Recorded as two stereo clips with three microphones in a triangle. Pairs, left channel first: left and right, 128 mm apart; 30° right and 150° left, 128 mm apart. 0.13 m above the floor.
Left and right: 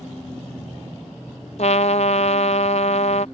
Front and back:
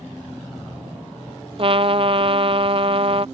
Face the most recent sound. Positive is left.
turn(degrees=110)